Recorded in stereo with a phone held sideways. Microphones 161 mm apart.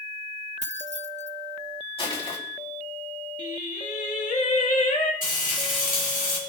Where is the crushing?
40° left (ahead or behind), 4 m.